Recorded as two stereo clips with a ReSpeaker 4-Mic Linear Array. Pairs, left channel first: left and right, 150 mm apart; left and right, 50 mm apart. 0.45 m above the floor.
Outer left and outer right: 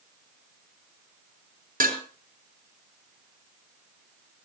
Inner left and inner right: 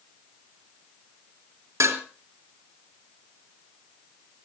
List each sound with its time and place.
1.8 s dishes clattering: 70° right (ahead or behind), 3.5 m